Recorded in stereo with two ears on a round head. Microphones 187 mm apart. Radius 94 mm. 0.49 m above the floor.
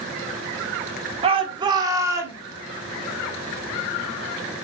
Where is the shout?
30° right (ahead or behind), 1.5 m; by 2.4 s 10° right (ahead or behind), 2 m.